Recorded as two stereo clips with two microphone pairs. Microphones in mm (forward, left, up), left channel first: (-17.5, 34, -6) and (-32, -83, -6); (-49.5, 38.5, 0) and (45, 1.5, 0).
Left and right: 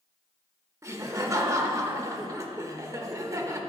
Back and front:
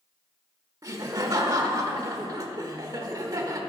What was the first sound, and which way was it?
Laughter, 50° right.